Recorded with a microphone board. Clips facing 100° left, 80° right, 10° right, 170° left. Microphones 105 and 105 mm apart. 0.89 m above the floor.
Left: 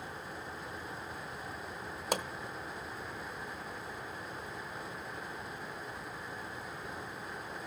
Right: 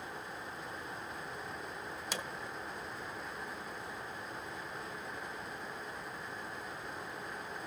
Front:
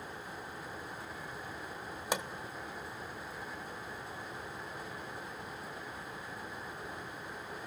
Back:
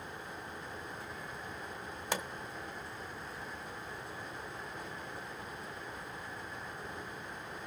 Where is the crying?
I don't hear crying.